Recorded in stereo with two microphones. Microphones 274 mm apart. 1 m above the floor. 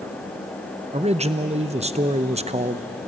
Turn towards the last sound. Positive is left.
turn(degrees=-25)  # may be behind; listen again after turning